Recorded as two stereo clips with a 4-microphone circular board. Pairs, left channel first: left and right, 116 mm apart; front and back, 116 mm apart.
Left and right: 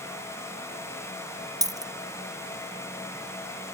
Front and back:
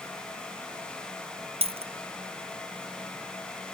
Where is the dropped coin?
150° right.